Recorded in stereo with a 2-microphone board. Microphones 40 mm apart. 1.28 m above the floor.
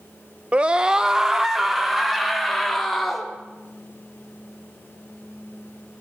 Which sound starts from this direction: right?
A scream, at 0.5 s.